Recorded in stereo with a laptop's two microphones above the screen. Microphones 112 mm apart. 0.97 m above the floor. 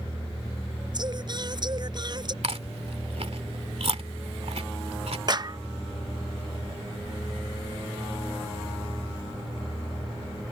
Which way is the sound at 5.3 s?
40° right (ahead or behind).